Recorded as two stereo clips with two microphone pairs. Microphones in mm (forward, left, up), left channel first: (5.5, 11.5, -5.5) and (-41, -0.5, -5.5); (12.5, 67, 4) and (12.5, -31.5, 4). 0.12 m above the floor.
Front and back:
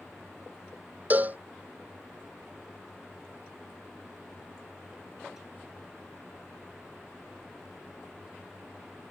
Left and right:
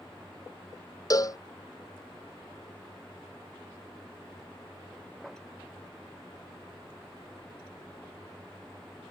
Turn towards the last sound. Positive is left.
turn(degrees=140)